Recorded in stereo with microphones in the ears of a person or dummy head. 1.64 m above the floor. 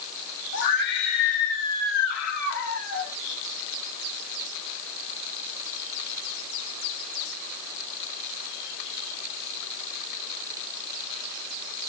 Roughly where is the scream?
Left.